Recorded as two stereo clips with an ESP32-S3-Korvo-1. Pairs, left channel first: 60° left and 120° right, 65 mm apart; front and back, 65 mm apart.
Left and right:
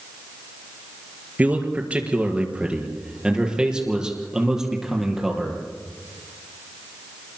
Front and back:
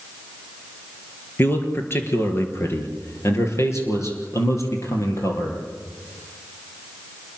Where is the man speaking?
55° right, 4 m; by 5.6 s 35° right, 6 m.